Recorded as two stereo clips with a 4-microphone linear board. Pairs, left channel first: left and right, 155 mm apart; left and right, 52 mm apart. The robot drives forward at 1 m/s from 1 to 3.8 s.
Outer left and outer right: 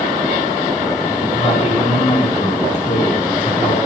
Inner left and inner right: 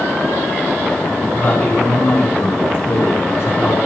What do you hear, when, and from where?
1.3 s a man speaking: 45° left (ahead or behind), 6.5 m; by 3.8 s 65° left (ahead or behind), 5 m